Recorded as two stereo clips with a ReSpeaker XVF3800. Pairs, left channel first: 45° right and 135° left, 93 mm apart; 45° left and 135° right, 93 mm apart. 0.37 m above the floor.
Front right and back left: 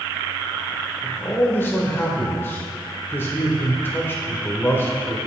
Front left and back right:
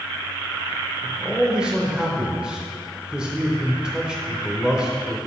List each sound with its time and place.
1.0 s a man speaking: 65° right, 1.0 m